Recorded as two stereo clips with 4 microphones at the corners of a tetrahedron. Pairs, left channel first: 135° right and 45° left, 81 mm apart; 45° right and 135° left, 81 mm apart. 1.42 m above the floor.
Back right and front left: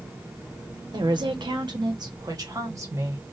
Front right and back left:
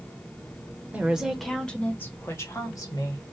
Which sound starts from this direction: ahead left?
A woman speaking, at 0.9 s.